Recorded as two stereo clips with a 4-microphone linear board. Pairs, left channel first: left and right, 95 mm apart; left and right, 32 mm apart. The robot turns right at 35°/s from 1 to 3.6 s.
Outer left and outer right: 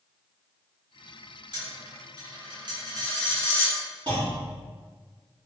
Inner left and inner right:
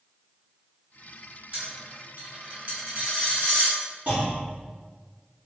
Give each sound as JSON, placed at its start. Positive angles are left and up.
{"t": 1.5, "sound": "a dropped coin", "side_deg": -50, "distance_m": 1.6}
{"t": 4.1, "sound": "a clunk", "side_deg": -45, "distance_m": 1.5}